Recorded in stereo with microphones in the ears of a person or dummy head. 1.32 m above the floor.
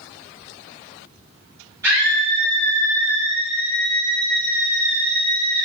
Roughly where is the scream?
Centre.